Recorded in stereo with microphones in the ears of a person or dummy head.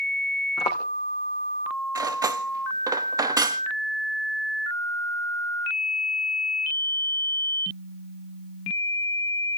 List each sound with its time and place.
0.6 s footsteps: 35° left (ahead or behind), 4.5 m
1.9 s cutlery clinking: 15° right (ahead or behind), 0.9 m